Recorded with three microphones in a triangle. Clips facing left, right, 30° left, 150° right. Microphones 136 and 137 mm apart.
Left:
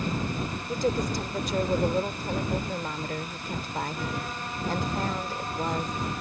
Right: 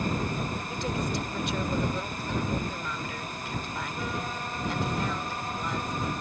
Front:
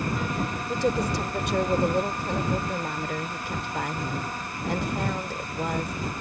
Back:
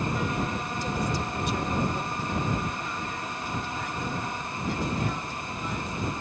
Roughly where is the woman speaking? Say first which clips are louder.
Left 7 dB, front 5 dB; ahead left.